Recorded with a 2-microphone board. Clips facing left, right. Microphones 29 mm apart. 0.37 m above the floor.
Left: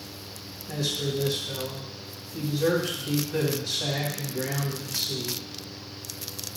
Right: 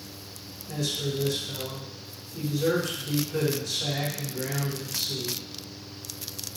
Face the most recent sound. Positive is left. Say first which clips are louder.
# left 1 dB
turn(degrees=35)  # may be behind; listen again after turning